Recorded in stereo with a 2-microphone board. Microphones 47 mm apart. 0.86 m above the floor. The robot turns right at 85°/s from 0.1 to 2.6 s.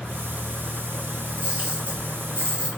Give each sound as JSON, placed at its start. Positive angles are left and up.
{"t": 1.3, "sound": "a camera shutter", "side_deg": -20, "distance_m": 1.6}